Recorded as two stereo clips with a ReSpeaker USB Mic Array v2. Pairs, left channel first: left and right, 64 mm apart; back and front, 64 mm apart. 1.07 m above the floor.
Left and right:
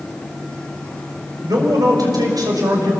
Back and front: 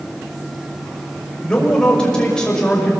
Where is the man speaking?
105° right, 6 m.